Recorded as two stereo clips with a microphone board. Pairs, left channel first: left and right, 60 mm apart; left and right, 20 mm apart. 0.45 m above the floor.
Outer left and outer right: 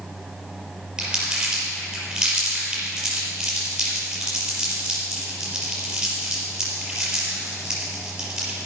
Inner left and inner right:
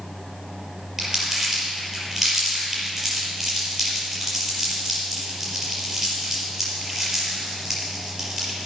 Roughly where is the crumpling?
Centre.